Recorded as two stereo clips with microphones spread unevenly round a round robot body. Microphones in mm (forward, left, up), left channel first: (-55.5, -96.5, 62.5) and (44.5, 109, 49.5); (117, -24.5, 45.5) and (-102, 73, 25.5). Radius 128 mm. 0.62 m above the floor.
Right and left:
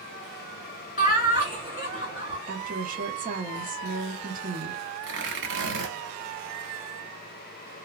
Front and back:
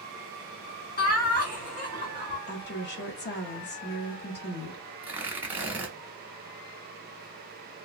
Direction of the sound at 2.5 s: 20° left.